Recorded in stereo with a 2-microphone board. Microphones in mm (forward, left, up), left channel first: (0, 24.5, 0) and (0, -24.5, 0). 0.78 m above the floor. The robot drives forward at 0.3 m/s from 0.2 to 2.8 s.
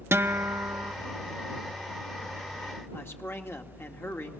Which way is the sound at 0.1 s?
60° right (ahead or behind).